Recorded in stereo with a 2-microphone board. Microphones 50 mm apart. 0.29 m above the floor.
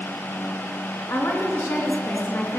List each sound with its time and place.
1.1 s a woman speaking: 60° left (ahead or behind), 2.5 m